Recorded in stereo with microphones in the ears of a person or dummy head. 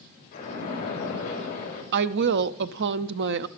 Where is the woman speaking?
60° right (ahead or behind), 0.5 m.